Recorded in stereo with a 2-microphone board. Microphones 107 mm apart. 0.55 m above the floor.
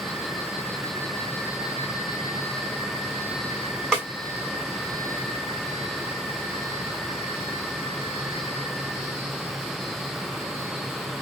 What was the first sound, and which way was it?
A snare drum, 5° left (ahead or behind).